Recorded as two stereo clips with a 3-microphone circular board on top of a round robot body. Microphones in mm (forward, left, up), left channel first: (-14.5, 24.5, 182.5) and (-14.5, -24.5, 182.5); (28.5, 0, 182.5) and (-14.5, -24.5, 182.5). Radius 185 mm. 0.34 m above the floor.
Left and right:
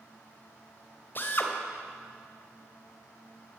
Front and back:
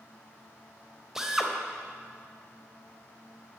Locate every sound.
1.1 s a drill: 130° left, 3 m